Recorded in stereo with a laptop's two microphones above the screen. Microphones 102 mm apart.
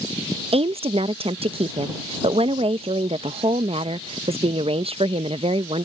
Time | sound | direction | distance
0.5 | a woman speaking | 75° right (ahead or behind) | ?